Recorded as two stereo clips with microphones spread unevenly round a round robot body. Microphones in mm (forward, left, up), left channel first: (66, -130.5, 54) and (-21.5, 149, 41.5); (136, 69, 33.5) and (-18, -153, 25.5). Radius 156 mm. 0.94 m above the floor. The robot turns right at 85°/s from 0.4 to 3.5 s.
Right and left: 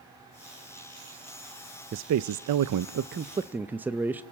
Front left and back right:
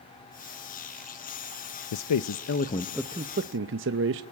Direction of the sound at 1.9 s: 55° left.